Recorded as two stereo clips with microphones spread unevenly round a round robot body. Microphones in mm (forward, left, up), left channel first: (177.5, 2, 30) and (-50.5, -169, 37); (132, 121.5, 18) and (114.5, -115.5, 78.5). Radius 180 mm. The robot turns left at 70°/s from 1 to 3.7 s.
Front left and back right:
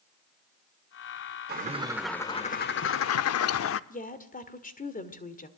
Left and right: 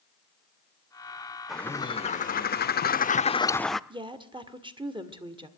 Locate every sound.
1.5 s a bird: 165° left, 0.6 m; by 3.8 s 10° left, 0.6 m
3.9 s a woman speaking: 15° right, 1.8 m